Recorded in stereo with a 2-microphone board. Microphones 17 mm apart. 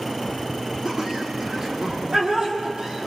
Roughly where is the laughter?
Centre.